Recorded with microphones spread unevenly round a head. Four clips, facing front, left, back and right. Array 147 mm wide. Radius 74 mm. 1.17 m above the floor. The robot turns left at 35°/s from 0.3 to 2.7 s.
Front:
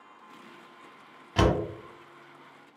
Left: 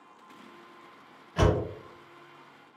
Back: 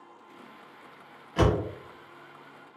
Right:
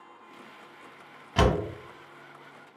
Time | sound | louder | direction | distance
1.4 | a door slam | right 2 dB, even | 50° right | 1.0 m